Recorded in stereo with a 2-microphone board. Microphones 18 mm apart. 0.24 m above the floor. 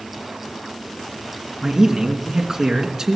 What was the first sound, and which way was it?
A man speaking, 30° right (ahead or behind).